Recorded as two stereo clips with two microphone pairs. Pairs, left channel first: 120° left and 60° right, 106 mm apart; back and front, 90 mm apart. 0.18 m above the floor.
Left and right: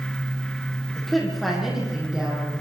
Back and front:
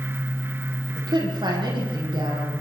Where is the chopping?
No chopping in this recording.